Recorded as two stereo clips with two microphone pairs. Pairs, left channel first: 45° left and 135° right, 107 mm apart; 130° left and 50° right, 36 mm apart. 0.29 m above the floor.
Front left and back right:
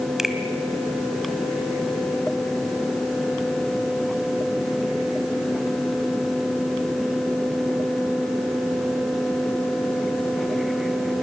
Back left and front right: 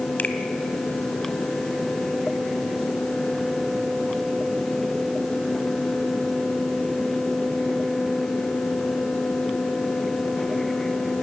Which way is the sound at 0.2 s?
140° left.